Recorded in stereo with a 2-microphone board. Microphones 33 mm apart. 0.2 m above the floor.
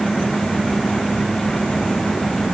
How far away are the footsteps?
I don't hear footsteps.